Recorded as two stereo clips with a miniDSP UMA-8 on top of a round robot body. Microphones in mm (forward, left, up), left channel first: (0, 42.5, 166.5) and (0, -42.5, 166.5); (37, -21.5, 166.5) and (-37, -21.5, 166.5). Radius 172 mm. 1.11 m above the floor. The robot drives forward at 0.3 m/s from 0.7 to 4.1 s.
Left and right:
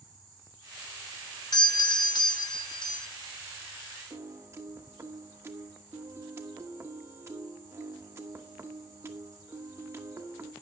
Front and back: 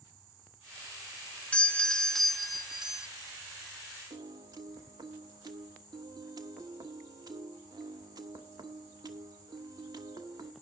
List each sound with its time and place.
1.5 s a doorbell: 70° left, 1.1 m; by 3.1 s 100° left, 1.1 m
4.1 s a piano: 150° right, 1.2 m